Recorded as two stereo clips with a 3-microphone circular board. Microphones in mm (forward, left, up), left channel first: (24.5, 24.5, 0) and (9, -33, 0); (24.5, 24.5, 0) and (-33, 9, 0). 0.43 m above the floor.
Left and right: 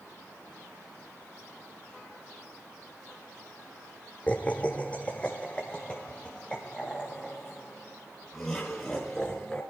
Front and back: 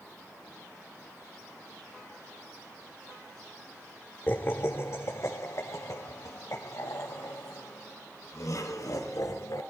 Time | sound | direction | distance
4.3 | laughter | 30° left | 1.0 m